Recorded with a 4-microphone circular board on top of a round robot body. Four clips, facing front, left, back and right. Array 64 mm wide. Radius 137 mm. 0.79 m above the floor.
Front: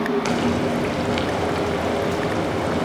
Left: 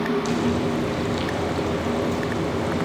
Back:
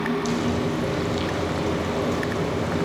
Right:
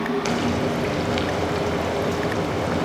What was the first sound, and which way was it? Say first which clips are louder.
Frying: even, front 3 dB; 35° right.